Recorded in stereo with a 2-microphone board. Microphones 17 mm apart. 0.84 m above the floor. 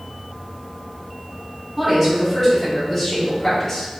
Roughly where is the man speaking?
Centre.